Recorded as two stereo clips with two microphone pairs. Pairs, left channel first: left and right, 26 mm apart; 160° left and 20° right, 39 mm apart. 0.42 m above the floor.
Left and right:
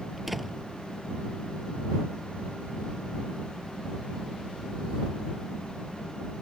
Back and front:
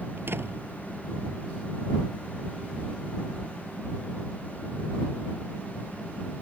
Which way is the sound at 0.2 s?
5° right.